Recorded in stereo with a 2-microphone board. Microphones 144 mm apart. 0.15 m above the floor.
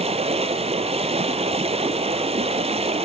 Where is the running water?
45° right (ahead or behind), 1.2 m.